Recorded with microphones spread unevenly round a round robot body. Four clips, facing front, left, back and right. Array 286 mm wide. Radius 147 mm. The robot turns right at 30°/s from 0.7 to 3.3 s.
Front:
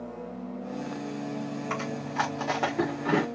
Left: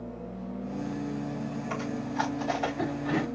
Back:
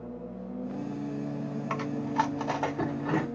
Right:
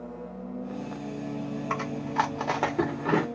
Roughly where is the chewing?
Right.